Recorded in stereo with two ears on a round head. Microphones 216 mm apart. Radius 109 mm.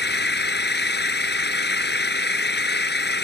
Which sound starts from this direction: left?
An engine running, at 0.0 s.